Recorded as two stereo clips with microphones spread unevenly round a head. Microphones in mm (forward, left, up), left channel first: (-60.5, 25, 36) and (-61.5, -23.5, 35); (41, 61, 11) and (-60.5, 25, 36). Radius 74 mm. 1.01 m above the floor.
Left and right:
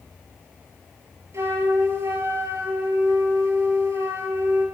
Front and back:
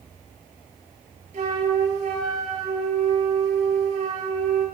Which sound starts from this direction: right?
A flute, at 1.3 s.